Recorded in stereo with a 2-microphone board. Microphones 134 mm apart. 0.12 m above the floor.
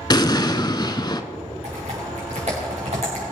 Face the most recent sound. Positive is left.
turn(degrees=-50)  # may be behind; listen again after turning